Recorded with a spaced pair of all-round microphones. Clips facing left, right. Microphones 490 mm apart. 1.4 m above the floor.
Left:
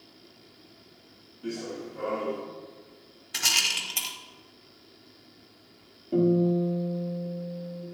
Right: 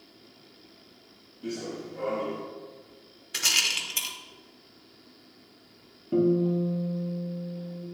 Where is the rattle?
15° left (ahead or behind), 1.0 m.